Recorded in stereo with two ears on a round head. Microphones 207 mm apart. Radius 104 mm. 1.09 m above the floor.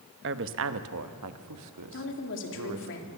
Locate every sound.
0.2 s a woman speaking: 50° right (ahead or behind), 1.0 m; by 2.9 s 85° right, 2 m
1.9 s a woman speaking: 55° left (ahead or behind), 3 m